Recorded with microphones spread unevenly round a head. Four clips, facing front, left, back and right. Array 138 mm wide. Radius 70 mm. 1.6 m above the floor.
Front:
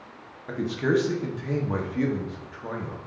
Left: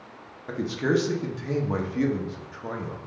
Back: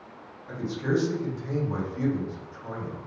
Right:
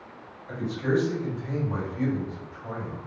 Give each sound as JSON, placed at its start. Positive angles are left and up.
{"t": 0.5, "sound": "a man speaking", "azimuth_deg": 55, "distance_m": 0.9}